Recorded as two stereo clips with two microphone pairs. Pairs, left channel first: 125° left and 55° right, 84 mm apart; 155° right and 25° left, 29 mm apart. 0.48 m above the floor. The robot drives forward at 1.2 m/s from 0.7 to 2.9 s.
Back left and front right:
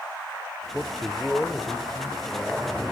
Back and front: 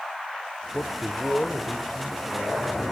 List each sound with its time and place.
0.7 s a man speaking: 135° right, 1.1 m; by 2.8 s 170° right, 3 m